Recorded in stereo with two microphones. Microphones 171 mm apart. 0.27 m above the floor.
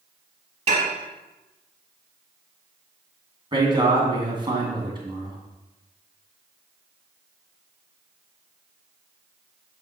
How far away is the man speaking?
About 2 m.